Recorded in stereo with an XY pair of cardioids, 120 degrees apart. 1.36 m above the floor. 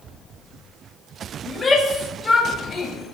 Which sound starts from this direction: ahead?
A shout, at 1.5 s.